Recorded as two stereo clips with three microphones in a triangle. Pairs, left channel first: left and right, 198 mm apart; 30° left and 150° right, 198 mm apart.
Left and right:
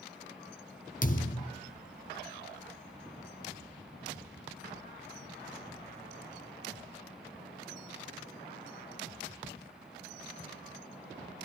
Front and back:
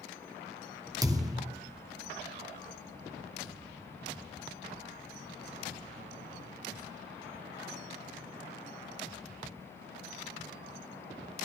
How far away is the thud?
About 1.1 m.